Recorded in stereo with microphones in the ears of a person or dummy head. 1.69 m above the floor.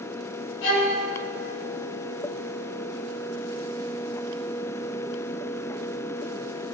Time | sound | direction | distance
0.6 | a violin | 75° left (ahead or behind) | 3 m